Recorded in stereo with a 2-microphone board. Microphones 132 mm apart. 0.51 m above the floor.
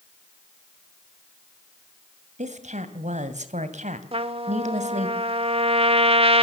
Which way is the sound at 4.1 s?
45° right (ahead or behind).